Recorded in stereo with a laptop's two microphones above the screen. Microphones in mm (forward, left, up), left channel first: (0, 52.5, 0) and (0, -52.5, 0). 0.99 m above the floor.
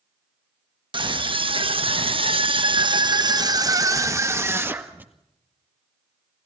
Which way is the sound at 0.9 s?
50° right (ahead or behind).